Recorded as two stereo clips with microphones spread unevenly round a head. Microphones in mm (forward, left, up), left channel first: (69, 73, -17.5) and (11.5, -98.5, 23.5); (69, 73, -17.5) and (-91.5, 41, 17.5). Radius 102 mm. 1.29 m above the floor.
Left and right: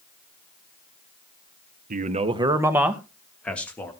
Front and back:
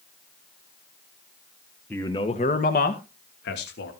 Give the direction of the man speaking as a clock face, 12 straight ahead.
2 o'clock.